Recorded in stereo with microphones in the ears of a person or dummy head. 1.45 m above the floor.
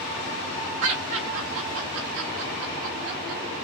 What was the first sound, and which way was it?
Laughter, 65° right (ahead or behind).